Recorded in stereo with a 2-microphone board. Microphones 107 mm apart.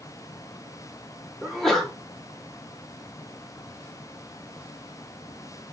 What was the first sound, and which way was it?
A sneeze, 5° left (ahead or behind).